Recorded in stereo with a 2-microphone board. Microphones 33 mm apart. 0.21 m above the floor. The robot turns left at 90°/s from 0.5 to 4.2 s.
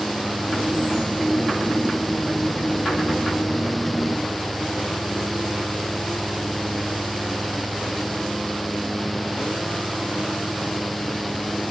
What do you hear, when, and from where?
Only background noise.